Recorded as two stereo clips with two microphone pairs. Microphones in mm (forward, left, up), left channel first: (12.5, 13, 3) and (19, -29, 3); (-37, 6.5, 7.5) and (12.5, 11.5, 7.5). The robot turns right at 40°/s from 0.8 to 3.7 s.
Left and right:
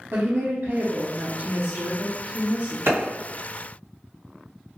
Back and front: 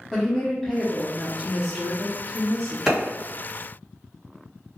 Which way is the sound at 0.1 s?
90° right.